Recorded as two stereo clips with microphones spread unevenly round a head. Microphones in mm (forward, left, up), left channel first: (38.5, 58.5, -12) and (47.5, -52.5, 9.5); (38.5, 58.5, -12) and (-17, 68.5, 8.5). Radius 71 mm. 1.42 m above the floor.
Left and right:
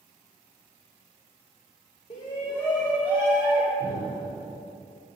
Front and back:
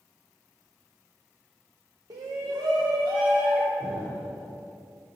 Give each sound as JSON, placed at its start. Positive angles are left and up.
{"t": 2.1, "sound": "a shout", "azimuth_deg": 135, "distance_m": 0.7}
{"t": 3.8, "sound": "an explosion", "azimuth_deg": -125, "distance_m": 3.0}